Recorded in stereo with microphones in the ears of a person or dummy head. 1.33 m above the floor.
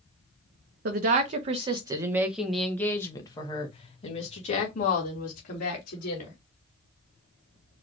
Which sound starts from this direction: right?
A woman speaking, at 0.8 s.